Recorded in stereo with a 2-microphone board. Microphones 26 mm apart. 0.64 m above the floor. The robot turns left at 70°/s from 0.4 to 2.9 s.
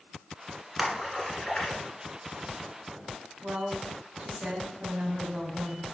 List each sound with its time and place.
0.8 s a splash: 10° right (ahead or behind), 1.7 m; by 1.8 s 60° left (ahead or behind), 1.7 m
3.4 s a woman speaking: 60° right (ahead or behind), 1.9 m